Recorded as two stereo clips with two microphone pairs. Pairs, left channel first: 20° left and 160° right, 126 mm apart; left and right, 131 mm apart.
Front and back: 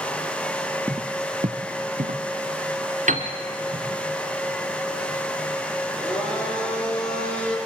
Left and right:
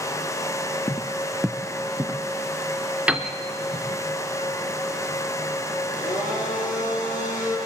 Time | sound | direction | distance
0.9 | footsteps | 135° left | 0.6 m
3.1 | a piano | 170° right | 1.7 m
5.9 | a blender | 100° left | 6 m